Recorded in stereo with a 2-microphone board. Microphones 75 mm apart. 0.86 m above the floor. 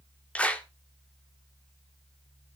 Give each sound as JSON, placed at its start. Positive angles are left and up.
{"t": 0.3, "sound": "a clap", "side_deg": 15, "distance_m": 1.4}